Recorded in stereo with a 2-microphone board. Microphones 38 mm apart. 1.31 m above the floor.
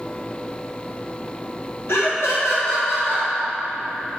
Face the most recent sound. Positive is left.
turn(degrees=85)